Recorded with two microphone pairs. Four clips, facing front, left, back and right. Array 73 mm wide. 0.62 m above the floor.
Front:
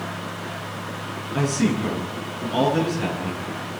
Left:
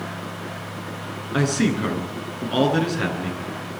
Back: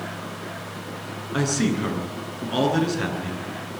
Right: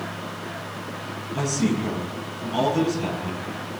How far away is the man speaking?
About 9 m.